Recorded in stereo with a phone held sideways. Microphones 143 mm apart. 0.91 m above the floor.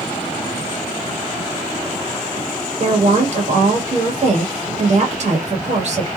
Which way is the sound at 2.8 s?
50° right (ahead or behind).